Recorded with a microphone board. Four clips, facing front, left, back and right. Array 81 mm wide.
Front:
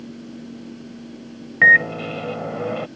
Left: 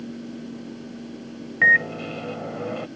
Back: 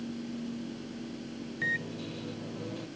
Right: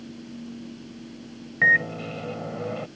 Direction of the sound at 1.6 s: 5° left.